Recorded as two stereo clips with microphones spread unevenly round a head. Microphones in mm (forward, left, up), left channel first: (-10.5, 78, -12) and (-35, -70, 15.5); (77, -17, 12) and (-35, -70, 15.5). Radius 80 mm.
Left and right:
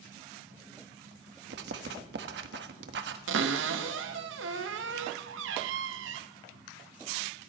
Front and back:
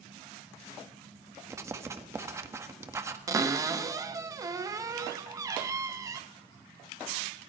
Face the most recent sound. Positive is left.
turn(degrees=-90)